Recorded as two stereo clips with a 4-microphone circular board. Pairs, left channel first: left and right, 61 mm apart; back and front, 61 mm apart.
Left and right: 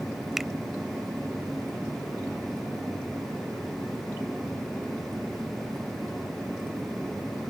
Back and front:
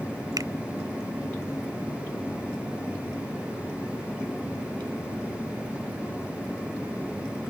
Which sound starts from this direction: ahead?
A finger snap, at 0.4 s.